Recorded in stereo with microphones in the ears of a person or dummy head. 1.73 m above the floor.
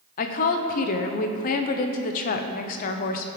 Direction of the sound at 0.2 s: 45° left (ahead or behind).